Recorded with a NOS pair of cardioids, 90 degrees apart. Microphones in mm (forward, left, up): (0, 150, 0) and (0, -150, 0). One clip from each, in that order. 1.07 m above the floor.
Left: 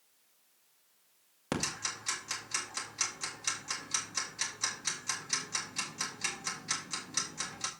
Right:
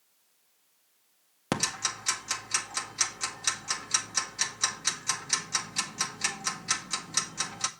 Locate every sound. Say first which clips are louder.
1.5 s ticking: right 5 dB; 35° right, 1.8 m